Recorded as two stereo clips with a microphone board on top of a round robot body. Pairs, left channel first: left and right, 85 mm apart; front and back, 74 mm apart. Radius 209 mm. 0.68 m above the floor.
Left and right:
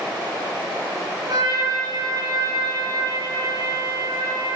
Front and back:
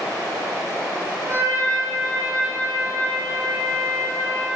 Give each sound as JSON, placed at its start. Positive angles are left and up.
{"t": 1.3, "sound": "a trumpet", "azimuth_deg": -130, "distance_m": 4.5}